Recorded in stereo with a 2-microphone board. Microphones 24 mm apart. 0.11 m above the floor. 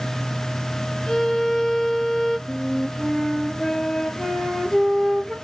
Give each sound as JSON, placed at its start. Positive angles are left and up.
{"t": 1.1, "sound": "a violin", "side_deg": 30, "distance_m": 0.8}
{"t": 2.5, "sound": "a flute", "side_deg": 15, "distance_m": 0.8}